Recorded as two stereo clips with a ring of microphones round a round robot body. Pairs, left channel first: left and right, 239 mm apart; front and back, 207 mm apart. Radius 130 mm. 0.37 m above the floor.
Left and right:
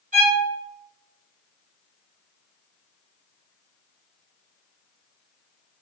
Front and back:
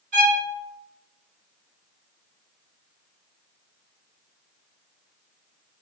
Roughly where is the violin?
Behind right.